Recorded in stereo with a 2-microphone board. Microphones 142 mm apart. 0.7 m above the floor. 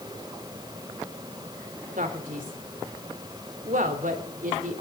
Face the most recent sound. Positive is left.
turn(degrees=-65)  # may be behind; listen again after turning